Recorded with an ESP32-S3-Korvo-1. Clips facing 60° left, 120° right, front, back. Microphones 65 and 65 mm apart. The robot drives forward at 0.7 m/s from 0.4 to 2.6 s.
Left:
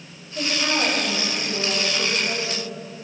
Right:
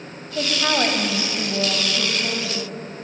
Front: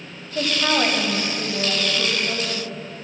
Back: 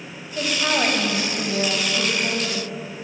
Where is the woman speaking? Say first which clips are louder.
Right 2 dB, front 1 dB; 65° right, 1.2 m; by 2.7 s 145° right, 1.7 m.